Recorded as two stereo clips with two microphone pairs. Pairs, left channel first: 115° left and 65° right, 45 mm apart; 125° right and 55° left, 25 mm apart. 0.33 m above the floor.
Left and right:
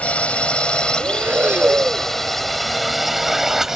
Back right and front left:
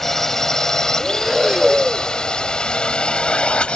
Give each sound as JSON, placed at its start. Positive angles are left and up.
{"t": 0.0, "sound": "a drone", "azimuth_deg": 160}
{"t": 1.0, "sound": "breathing", "azimuth_deg": -25}